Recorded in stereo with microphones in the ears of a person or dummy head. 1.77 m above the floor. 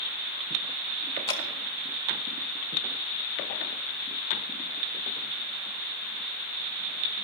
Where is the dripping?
30° left (ahead or behind), 0.9 m.